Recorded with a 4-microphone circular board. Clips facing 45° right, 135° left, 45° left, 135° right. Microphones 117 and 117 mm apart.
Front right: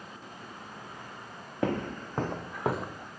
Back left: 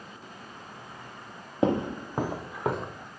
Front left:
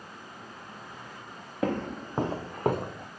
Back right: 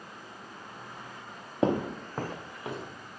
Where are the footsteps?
175° right, 0.5 m; by 3.1 s 40° left, 0.9 m.